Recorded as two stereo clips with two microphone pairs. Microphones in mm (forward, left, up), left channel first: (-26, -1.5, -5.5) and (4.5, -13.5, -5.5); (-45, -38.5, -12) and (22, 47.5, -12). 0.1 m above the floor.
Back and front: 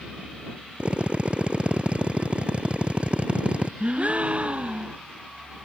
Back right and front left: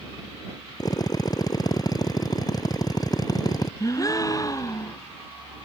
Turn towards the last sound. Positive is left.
turn(degrees=-70)